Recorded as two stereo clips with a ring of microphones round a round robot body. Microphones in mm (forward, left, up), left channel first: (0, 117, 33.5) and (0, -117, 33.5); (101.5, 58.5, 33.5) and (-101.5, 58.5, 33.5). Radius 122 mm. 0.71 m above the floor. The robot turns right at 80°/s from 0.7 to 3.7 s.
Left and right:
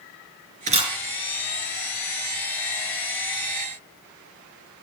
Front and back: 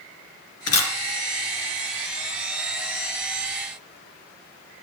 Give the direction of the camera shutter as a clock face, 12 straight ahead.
1 o'clock.